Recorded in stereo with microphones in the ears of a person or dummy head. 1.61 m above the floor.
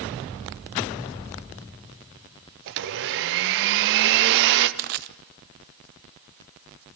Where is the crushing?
50° right (ahead or behind), 0.6 m.